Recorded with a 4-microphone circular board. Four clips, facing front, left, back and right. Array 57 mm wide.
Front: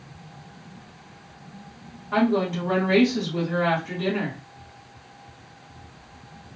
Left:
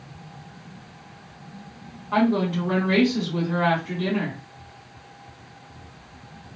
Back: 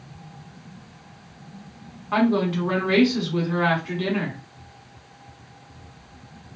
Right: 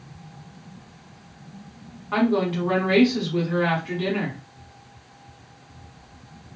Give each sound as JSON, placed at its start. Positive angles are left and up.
{"t": 2.1, "sound": "a woman speaking", "azimuth_deg": -160, "distance_m": 1.5}